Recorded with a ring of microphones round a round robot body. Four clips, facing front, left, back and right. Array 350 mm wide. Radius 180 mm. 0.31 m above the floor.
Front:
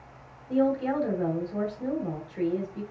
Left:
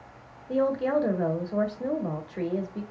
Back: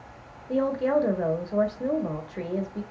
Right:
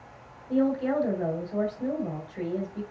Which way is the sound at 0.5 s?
140° left.